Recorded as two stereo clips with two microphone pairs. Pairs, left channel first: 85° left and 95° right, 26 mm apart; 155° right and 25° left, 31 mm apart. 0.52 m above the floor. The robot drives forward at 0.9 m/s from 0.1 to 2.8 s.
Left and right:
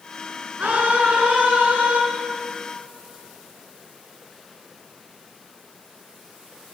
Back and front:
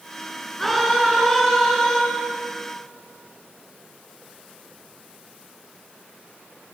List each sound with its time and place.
0.6 s a scream: 75° right, 8 m; by 2.0 s 85° right, 8 m